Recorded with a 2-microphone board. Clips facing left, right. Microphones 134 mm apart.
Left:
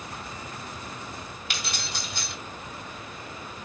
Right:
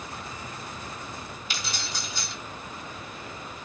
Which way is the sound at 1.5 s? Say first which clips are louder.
Even; 65° left (ahead or behind).